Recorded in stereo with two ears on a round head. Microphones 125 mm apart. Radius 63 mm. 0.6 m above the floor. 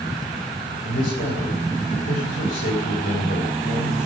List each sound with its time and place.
0.8 s a man speaking: 70° left (ahead or behind), 3.5 m